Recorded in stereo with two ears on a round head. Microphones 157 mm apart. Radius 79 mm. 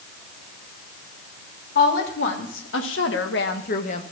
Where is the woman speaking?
65° left (ahead or behind), 3 m; by 4.0 s 35° left (ahead or behind), 1.4 m.